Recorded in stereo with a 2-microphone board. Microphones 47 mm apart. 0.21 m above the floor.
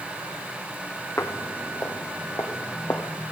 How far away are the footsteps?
About 0.7 m.